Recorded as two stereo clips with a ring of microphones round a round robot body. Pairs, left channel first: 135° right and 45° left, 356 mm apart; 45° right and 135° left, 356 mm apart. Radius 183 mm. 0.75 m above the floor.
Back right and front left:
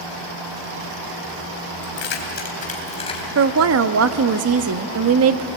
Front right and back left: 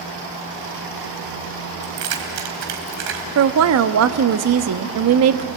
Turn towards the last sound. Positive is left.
turn(degrees=90)